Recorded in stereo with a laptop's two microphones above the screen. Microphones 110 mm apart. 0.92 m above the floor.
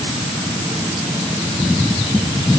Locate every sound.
Only background noise.